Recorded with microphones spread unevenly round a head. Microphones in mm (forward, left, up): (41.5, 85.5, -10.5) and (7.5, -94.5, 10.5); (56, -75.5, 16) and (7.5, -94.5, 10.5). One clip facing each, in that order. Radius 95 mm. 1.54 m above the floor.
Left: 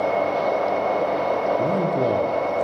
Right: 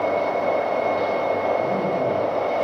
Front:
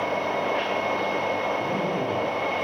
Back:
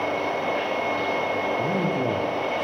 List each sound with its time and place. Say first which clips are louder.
1.6 s a man speaking: left 1 dB, back 2 dB; 140° left, 0.8 m